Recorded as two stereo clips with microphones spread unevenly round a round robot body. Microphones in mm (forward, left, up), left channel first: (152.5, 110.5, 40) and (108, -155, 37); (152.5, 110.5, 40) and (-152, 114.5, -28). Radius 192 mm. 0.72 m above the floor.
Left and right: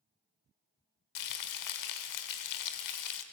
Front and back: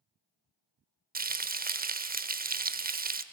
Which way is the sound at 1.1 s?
115° left.